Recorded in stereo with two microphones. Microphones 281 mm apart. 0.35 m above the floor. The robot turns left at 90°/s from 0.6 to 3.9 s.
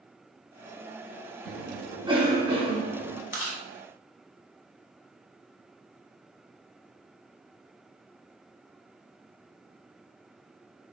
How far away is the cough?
About 0.8 m.